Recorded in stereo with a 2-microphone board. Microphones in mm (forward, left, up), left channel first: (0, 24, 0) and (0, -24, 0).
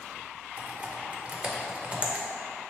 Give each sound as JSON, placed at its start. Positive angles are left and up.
{"t": 0.6, "sound": "typing on a keyboard", "side_deg": -25, "distance_m": 0.5}